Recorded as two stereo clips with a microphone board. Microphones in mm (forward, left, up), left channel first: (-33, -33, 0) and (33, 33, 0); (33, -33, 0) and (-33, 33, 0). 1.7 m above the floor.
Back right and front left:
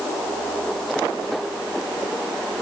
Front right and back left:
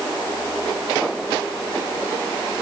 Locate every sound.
Only background noise.